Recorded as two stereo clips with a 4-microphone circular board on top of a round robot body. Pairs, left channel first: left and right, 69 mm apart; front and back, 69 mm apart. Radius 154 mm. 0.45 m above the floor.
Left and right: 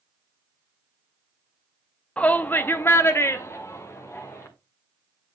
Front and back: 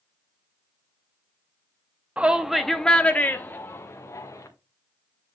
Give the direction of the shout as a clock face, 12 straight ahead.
8 o'clock.